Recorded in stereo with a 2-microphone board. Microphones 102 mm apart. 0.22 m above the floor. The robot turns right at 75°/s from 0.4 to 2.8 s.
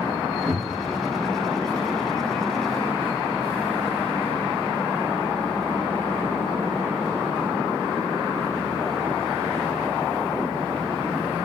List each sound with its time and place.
0.5 s a cupboard door: 65° right, 1.7 m; by 0.9 s 30° right, 1.7 m